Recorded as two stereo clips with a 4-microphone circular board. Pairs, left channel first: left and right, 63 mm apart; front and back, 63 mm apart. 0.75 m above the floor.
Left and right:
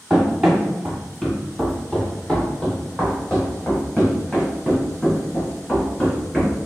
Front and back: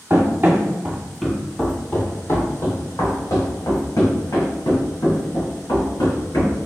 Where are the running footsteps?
170° right, 0.9 m; by 6.5 s 15° left, 3 m.